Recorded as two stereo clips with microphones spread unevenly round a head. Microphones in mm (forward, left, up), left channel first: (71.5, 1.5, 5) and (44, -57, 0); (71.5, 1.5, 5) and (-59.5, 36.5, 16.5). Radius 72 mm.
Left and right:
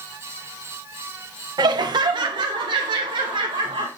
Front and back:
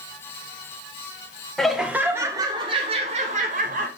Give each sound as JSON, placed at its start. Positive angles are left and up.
{"t": 1.6, "sound": "laughter", "azimuth_deg": -105, "distance_m": 1.4}